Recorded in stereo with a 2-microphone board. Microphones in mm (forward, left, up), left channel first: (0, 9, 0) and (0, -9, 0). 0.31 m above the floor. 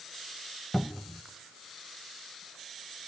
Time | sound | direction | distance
0.7 | a cupboard door | 25° left (ahead or behind) | 0.7 m